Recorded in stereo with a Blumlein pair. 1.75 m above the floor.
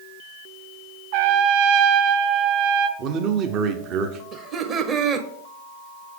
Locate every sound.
1.1 s a trumpet: 50° right, 0.5 m
3.0 s a man speaking: 35° right, 0.8 m
4.3 s laughter: 30° right, 1.1 m